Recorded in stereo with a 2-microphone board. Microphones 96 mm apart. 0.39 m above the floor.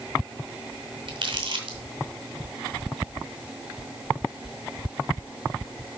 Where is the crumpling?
60° right (ahead or behind), 2.5 m.